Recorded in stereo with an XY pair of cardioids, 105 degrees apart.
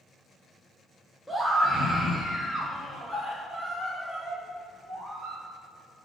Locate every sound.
1.3 s a scream: 10° right, 1.4 m; by 5.4 s 5° right, 4 m